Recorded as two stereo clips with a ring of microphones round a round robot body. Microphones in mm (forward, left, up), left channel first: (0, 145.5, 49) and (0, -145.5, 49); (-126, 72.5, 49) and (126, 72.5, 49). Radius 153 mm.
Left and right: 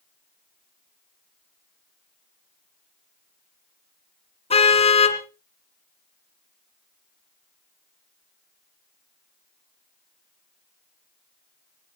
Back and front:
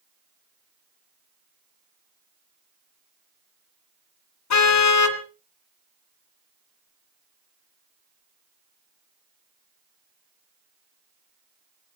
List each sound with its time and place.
4.5 s a car horn: 160° left, 2.5 m